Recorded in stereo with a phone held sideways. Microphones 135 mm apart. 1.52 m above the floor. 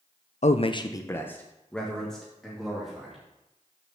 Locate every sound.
0.4 s a man speaking: 65° left (ahead or behind), 0.5 m; by 3.2 s centre (ahead or behind), 3 m